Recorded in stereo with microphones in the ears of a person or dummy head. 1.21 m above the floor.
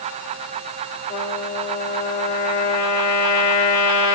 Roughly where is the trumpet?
Left.